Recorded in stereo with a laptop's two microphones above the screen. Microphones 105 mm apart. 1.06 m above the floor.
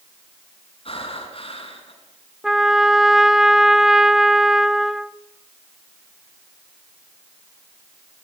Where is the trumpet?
5° right (ahead or behind), 0.5 m.